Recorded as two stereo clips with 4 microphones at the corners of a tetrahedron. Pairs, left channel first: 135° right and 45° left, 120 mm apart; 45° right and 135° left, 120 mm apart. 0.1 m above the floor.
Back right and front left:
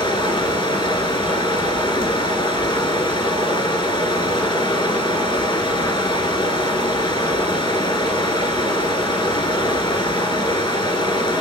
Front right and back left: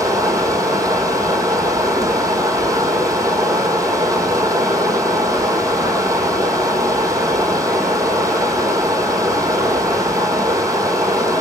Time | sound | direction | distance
0.0 | running water | 170° right | 1.4 m